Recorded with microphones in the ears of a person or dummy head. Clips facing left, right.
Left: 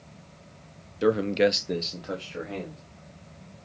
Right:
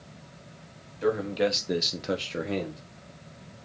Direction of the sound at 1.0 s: 50° left (ahead or behind).